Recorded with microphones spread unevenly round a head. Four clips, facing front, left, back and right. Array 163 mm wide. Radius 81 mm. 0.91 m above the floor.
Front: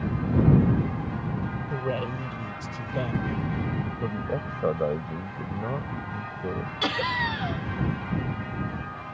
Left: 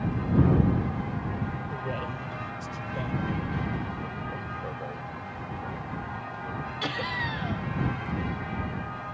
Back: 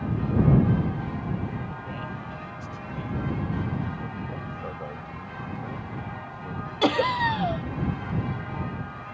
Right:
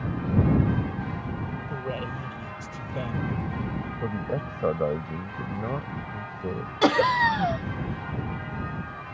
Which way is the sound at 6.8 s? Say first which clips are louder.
Right 14 dB, back 6 dB; 120° right.